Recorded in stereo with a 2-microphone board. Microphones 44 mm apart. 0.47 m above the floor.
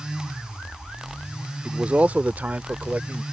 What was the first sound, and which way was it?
A man speaking, 30° right (ahead or behind).